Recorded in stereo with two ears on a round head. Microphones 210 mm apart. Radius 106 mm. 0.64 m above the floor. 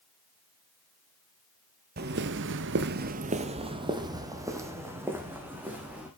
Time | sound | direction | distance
2.0 | footsteps | 40° right (ahead or behind) | 1.1 m